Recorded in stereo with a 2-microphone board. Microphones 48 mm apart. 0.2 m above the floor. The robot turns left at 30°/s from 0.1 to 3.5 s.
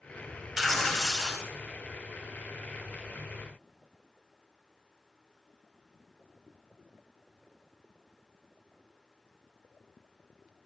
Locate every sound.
0.6 s tearing paper: 10° right (ahead or behind), 1.5 m; by 1.5 s 15° left (ahead or behind), 1.5 m